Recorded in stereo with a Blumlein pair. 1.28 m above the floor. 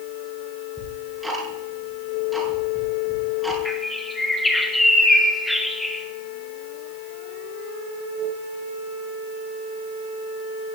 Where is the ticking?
5° right, 6.5 m.